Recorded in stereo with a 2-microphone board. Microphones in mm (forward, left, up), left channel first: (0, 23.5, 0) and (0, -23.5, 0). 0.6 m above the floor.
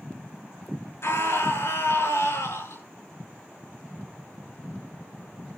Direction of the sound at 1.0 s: 70° left (ahead or behind).